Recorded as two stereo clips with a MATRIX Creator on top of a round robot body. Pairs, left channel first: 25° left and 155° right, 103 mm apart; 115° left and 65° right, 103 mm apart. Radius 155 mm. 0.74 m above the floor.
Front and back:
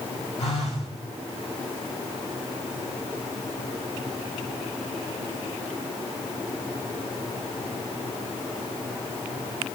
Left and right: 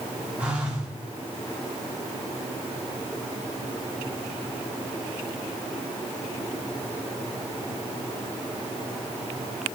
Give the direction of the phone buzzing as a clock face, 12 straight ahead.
12 o'clock.